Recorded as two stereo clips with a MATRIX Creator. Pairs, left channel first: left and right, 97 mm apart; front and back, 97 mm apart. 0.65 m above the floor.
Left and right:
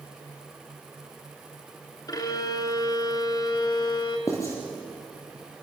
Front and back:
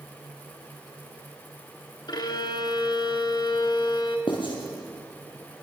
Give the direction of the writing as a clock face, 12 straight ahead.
11 o'clock.